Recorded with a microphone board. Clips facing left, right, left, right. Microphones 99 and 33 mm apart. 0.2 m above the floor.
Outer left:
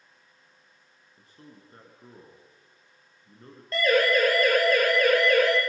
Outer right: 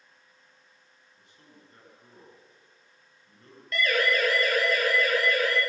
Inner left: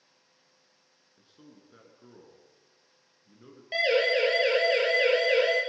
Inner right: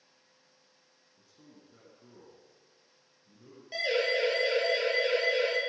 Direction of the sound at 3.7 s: 35° left (ahead or behind).